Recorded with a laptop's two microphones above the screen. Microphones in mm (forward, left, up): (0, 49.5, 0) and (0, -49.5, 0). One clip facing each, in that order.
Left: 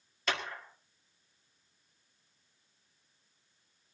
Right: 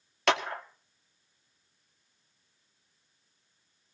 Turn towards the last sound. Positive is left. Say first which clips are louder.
# right 9 dB
turn(degrees=-70)  # may be behind; listen again after turning